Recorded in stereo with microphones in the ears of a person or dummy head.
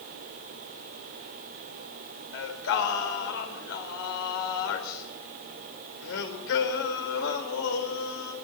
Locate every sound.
2.3 s singing: 75° left (ahead or behind), 4 m